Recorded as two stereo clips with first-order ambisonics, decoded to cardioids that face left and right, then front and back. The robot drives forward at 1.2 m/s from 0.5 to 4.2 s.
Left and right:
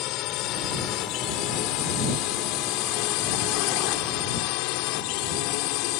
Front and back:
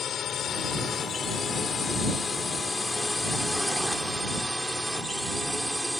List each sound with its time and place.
0.0 s a drone: 60° left; by 6.0 s 95° left